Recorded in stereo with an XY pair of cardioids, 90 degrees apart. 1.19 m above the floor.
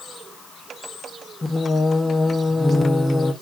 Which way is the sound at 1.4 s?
30° left.